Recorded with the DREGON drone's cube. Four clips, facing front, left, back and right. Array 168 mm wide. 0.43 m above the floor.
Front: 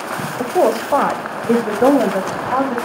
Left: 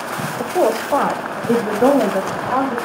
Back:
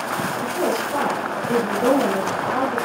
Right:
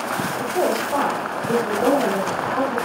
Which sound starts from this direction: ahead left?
A woman speaking, at 0.4 s.